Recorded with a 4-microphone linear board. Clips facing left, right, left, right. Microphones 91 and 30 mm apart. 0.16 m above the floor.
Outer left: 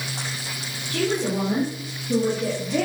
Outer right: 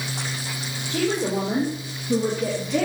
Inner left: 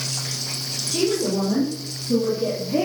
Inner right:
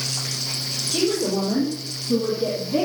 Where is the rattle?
No rattle in this recording.